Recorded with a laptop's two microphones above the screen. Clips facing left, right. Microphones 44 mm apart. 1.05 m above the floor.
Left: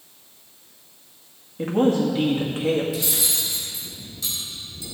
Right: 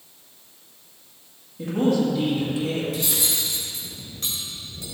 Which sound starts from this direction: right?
Cutlery clinking, at 2.9 s.